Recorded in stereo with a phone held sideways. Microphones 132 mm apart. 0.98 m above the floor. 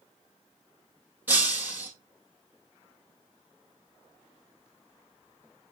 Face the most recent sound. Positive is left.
turn(degrees=-15)  # may be behind; listen again after turning